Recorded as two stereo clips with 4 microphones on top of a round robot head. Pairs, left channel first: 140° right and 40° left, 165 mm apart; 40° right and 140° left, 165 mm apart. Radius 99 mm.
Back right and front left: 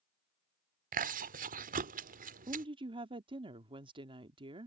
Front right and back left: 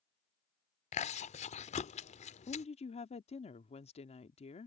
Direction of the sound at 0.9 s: 5° left.